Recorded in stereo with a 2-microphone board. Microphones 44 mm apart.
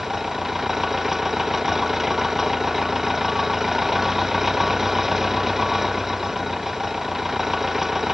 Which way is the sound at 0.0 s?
5° right (ahead or behind).